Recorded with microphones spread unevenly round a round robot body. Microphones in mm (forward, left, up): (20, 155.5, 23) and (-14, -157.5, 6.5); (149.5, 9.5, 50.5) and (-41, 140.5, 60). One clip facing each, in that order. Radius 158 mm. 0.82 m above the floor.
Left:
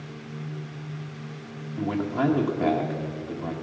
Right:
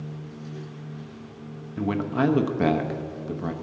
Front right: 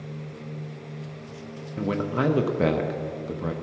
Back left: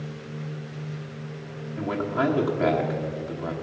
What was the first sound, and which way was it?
A man speaking, 75° right.